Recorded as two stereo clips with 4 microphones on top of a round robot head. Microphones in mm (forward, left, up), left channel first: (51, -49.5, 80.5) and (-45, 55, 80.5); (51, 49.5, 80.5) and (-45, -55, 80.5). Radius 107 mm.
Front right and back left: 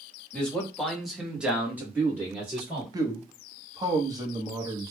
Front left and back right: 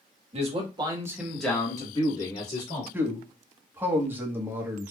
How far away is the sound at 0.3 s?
About 1.4 m.